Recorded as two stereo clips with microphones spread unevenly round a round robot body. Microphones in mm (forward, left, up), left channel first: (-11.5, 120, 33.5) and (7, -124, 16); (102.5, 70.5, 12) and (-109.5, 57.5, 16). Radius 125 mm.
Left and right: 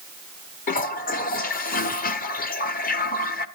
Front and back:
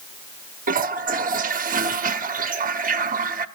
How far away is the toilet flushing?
About 0.9 m.